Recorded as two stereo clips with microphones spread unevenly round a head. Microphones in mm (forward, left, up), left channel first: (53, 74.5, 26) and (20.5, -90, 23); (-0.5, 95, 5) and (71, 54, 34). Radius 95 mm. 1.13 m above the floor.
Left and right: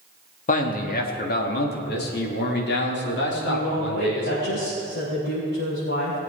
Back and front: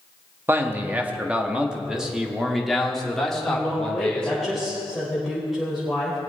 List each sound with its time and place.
0.5 s a man speaking: 35° left, 1.9 m; by 4.5 s 70° left, 3.5 m
3.5 s a woman speaking: 60° left, 5 m